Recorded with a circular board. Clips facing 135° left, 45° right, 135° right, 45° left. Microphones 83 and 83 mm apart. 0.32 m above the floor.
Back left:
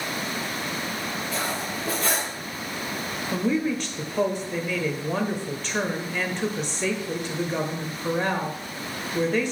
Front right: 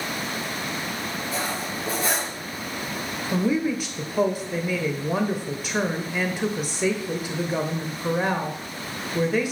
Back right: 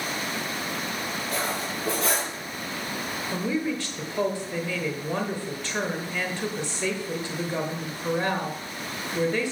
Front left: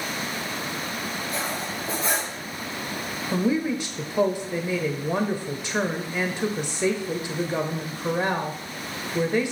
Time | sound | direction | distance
1.3 | cutlery clinking | 120° right | 5.5 m
3.3 | a woman speaking | 15° left | 0.9 m